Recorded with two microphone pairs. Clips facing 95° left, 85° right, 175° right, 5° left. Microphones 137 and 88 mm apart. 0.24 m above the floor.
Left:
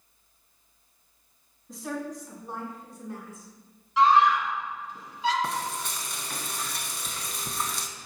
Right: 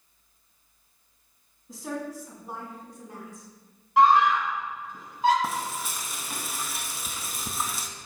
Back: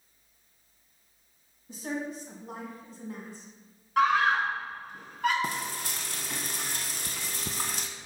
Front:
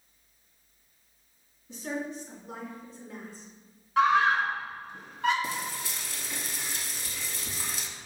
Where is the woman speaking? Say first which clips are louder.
Even, even; 170° right, 2.0 m; by 3.5 s 150° right, 2.5 m.